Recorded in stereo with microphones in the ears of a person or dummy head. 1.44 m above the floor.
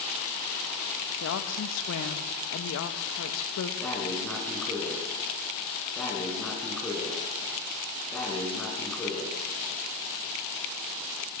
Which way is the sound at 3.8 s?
5° left (ahead or behind).